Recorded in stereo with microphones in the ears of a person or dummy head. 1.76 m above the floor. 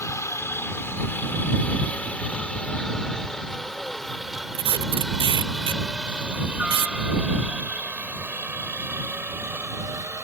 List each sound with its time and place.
0.0 s a helicopter: 20° left (ahead or behind); by 10.2 s 15° right (ahead or behind)
4.5 s tape being pulled: 30° right (ahead or behind)